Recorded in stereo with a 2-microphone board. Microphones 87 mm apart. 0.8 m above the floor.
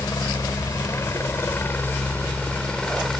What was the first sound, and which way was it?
A helicopter, 40° left (ahead or behind).